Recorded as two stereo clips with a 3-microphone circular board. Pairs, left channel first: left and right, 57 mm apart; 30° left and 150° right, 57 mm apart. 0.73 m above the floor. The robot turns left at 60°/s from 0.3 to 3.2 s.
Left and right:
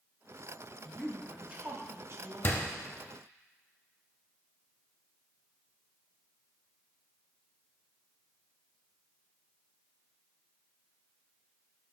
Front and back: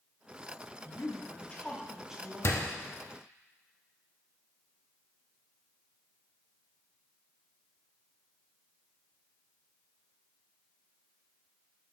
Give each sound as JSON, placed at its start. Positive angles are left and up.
{"t": 0.8, "sound": "a woman speaking", "azimuth_deg": 5, "distance_m": 1.4}
{"t": 2.4, "sound": "a door slam", "azimuth_deg": 50, "distance_m": 0.8}